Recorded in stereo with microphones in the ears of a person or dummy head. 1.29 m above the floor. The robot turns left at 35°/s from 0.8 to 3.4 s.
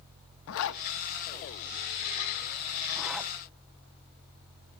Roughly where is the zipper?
Left.